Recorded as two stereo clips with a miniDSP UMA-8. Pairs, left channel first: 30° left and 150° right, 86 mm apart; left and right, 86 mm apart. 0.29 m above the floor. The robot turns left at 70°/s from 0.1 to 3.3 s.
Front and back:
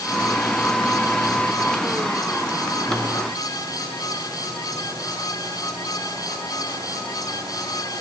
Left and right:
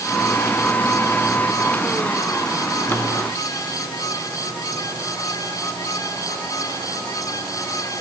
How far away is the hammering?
No hammering in this recording.